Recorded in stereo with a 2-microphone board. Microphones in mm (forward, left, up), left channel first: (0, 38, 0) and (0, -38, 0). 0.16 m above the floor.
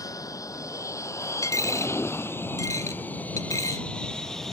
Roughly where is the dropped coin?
Left.